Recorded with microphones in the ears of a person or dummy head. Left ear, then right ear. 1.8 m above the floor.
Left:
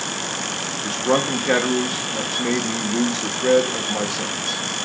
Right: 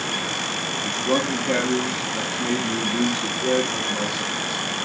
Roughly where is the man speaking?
Left.